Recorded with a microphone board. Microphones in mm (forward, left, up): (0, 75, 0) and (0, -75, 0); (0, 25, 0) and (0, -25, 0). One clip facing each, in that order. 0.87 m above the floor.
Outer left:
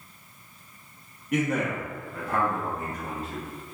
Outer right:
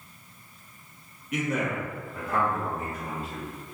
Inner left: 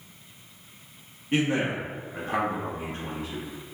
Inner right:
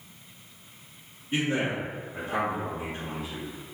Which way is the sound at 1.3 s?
55° left (ahead or behind).